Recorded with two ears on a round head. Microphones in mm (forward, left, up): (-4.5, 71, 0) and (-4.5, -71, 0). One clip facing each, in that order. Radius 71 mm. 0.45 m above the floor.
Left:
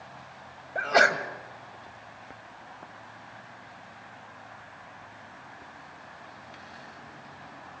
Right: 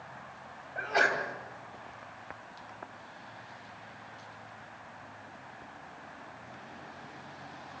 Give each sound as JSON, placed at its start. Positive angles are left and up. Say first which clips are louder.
{"t": 0.8, "sound": "a sneeze", "louder": "left 6 dB", "side_deg": 70, "distance_m": 2.0}